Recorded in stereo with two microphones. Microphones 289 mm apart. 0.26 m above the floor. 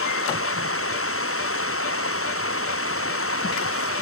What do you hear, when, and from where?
0.0 s running water: 45° left (ahead or behind)